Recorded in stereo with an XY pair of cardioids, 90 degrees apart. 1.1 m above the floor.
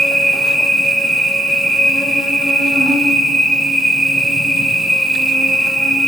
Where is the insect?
5° right, 1.6 m.